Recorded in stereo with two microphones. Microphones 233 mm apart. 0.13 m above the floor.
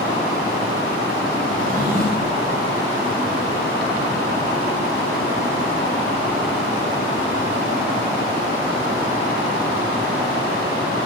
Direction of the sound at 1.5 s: 35° right (ahead or behind).